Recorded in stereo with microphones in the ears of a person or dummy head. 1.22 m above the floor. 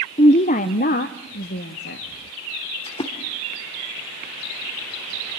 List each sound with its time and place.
0.2 s a woman speaking: 25° left (ahead or behind), 0.5 m; by 2.1 s 55° left (ahead or behind), 1.5 m
2.9 s a splash: 25° left (ahead or behind), 1.4 m